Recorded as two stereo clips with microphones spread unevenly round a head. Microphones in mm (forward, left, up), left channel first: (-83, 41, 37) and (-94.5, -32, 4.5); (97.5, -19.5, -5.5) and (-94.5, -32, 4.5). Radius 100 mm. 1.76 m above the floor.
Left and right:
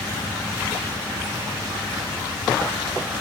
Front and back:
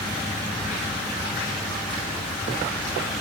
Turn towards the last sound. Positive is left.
No sound to turn to.